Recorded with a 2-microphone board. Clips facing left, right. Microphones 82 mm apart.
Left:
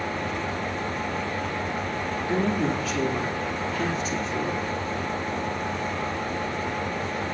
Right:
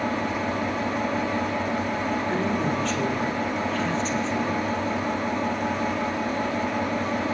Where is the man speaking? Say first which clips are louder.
Left 4 dB; 5° left (ahead or behind), 4 m.